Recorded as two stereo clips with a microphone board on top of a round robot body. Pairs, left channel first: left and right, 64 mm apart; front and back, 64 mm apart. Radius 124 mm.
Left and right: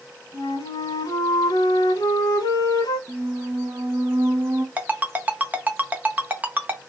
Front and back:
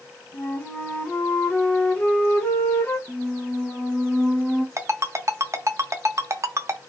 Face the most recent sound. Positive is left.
turn(degrees=-150)